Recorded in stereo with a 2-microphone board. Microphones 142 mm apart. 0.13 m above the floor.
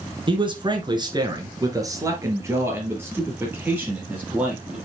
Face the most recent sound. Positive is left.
turn(degrees=-10)  # may be behind; listen again after turning